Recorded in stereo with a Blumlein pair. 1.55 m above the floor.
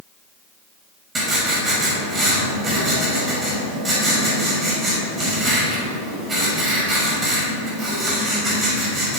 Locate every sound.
1.1 s writing: 20° right, 5.5 m